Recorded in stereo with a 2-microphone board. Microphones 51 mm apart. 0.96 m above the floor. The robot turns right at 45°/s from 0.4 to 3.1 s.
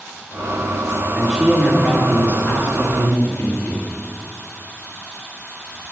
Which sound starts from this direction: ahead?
A man speaking, at 1.1 s.